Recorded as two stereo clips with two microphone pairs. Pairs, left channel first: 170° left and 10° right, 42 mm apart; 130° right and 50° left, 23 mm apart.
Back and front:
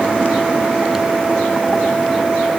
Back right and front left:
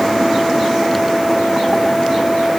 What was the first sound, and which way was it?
Only background noise.